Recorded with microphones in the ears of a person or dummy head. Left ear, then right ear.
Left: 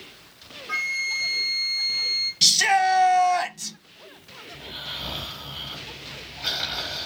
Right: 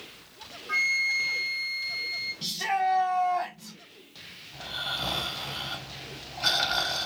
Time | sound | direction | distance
0.7 | a flute | 10° left (ahead or behind) | 1.3 m
2.4 | a shout | 70° left (ahead or behind) | 1.0 m
4.5 | snoring | 55° right (ahead or behind) | 3.5 m